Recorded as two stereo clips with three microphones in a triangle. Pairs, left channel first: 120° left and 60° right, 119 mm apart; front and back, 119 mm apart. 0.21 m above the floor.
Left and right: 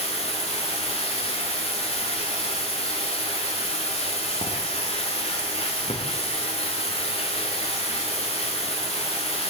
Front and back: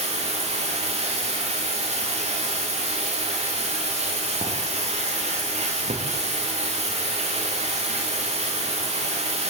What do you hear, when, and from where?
0.0 s running water: 155° left, 6.5 m